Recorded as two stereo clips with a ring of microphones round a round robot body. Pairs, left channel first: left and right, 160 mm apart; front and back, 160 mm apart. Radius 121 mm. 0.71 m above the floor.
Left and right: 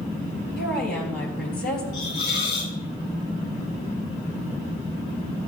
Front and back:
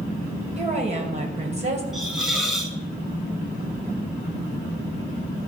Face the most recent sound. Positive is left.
turn(degrees=90)